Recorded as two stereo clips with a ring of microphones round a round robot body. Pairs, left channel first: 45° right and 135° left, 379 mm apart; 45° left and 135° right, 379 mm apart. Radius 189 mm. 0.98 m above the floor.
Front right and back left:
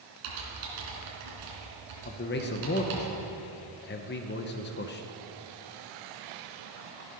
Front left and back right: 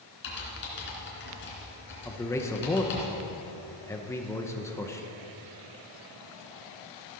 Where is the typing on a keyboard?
105° left, 3 m.